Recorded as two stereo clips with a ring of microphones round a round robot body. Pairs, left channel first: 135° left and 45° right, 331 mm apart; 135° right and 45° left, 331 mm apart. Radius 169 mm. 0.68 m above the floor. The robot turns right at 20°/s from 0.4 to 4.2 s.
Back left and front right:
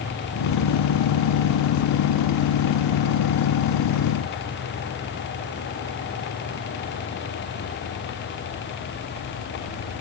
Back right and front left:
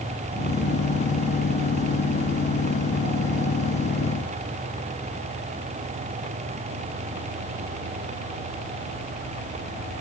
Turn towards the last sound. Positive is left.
No sound to turn to.